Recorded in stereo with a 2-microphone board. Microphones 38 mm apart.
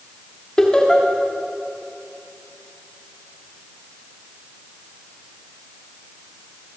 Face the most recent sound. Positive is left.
turn(degrees=20)  # may be behind; listen again after turning